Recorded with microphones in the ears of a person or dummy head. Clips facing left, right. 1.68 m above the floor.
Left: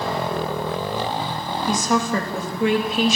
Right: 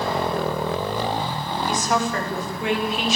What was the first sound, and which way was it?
A woman speaking, 85° left.